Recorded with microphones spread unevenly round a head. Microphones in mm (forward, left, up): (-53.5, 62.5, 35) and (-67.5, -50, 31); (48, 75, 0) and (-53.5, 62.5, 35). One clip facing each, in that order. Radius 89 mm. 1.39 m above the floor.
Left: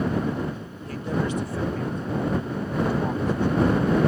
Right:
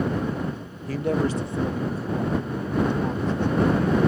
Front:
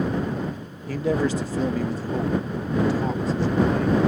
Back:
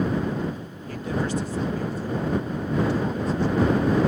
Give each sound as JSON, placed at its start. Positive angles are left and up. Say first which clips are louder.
{"t": 0.9, "sound": "a man speaking", "louder": "right 3 dB, front 5 dB", "azimuth_deg": -50}